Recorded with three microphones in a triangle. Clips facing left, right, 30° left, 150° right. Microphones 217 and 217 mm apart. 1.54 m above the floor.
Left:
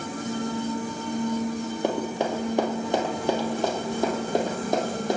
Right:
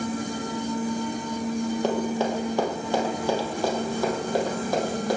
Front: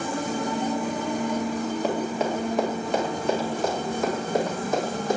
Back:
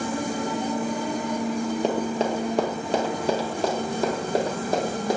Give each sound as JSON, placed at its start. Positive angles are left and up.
{"t": 1.8, "sound": "running footsteps", "azimuth_deg": 160, "distance_m": 2.5}